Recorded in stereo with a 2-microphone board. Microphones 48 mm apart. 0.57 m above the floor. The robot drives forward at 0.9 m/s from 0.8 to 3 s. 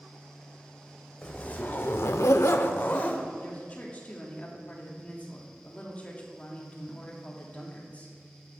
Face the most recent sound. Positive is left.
turn(degrees=30)  # may be behind; listen again after turning